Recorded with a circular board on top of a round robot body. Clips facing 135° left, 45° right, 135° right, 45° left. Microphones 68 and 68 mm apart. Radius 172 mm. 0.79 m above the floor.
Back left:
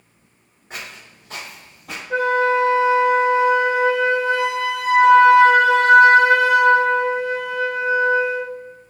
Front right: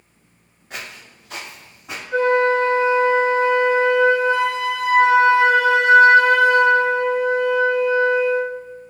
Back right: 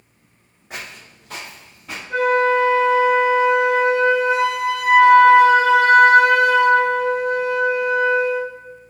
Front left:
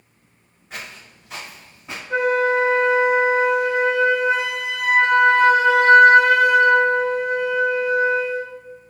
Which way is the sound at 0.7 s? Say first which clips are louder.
Front right 1 dB, back right 1 dB; 160° right.